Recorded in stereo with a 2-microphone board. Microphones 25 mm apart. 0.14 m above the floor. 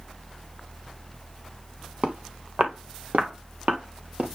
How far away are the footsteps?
About 2.5 m.